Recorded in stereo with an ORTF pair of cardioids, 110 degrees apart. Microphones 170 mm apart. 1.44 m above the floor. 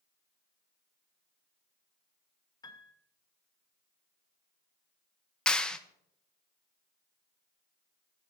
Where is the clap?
5° left, 0.7 m.